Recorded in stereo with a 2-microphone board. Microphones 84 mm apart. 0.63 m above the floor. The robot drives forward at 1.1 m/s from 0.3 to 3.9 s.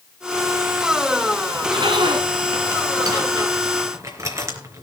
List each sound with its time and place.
1.5 s a zipper: 80° right, 2.5 m; by 4.8 s 40° right (ahead or behind), 4 m